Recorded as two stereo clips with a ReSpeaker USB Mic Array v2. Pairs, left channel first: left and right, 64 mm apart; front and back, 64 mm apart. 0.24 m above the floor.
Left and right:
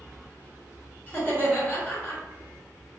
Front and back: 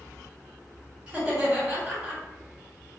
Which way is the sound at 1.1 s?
120° left.